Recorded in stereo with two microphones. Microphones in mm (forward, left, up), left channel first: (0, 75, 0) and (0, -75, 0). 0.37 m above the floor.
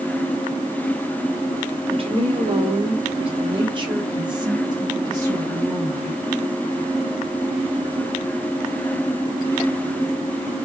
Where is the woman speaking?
40° right (ahead or behind), 1.5 m; by 6.2 s 20° right (ahead or behind), 2.5 m.